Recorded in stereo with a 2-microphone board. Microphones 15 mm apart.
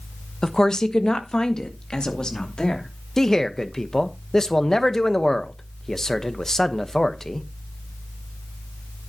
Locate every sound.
0.4 s a woman speaking: 35° left (ahead or behind), 1.1 m; by 2.9 s 70° left (ahead or behind), 3 m
3.2 s a man speaking: 35° left (ahead or behind), 1.2 m